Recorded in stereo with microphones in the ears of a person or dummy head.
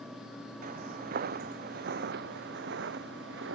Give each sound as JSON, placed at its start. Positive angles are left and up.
{"t": 0.6, "sound": "footsteps", "side_deg": -45}